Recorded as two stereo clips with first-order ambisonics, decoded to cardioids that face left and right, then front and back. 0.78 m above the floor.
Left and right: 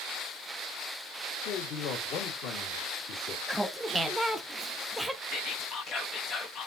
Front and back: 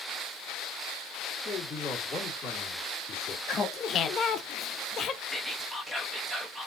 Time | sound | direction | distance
1.4 | a man speaking | 70° left | 1.9 m
3.5 | laughter | 5° right | 0.6 m
5.3 | whispering | 105° left | 1.0 m